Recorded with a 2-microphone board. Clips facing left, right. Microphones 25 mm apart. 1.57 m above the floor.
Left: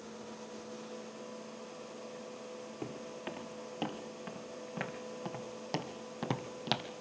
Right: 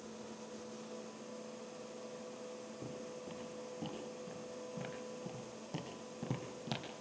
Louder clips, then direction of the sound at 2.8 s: Left 6 dB; 70° left (ahead or behind).